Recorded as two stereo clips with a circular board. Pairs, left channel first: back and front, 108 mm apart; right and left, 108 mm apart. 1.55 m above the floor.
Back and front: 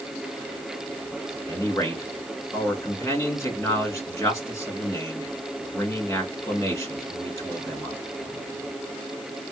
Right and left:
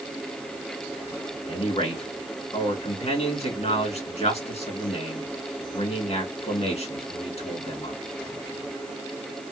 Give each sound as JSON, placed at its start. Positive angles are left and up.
{"t": 1.5, "sound": "a man speaking", "azimuth_deg": -115, "distance_m": 2.5}